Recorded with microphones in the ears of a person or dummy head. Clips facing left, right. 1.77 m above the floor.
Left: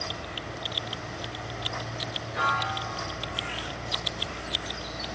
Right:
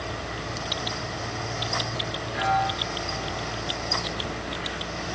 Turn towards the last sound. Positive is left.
turn(degrees=-5)  # may be behind; listen again after turning